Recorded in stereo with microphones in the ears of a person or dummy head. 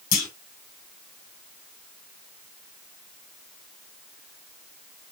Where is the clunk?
50° left (ahead or behind), 1.8 m.